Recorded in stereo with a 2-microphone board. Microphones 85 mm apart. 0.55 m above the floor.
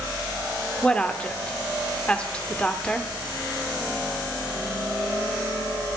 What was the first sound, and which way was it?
A woman speaking, 15° left (ahead or behind).